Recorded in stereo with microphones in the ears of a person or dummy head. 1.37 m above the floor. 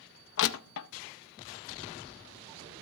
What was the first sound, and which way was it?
Crushing, 70° left (ahead or behind).